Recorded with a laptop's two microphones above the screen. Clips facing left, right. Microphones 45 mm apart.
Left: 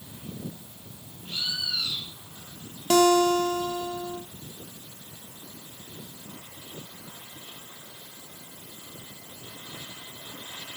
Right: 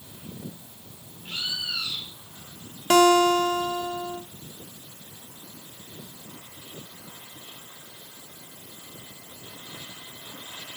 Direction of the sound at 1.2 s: 45° right (ahead or behind).